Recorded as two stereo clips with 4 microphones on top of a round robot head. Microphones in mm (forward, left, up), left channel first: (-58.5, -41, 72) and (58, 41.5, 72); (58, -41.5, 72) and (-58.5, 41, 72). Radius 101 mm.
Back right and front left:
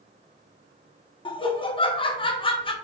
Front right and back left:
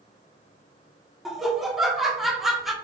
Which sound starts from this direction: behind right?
Laughter, at 1.2 s.